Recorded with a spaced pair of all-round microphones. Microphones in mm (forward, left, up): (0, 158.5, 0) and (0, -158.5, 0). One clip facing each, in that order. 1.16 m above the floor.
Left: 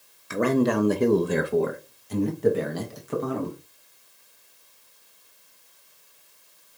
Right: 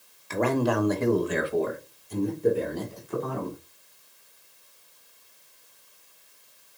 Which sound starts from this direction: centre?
A man speaking, at 0.3 s.